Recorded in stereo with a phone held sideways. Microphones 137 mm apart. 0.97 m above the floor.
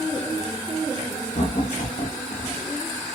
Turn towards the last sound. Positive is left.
turn(degrees=50)  # may be behind; listen again after turning